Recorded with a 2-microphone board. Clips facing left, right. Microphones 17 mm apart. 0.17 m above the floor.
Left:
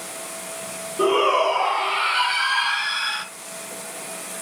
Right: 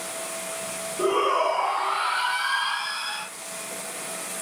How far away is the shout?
About 6 m.